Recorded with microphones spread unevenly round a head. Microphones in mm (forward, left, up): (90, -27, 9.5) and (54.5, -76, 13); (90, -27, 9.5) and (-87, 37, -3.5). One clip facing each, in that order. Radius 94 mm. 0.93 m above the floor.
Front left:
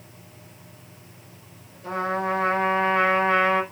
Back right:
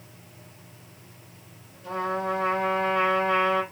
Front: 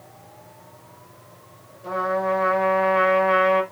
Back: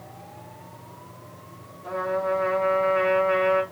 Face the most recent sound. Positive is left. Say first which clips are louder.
# front left 2 dB, front 2 dB
turn(degrees=30)